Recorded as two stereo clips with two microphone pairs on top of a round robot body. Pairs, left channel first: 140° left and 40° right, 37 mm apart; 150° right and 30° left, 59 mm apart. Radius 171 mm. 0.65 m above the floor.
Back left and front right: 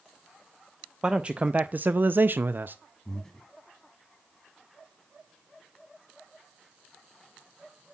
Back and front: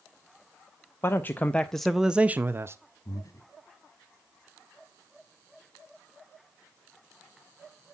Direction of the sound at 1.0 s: 105° right.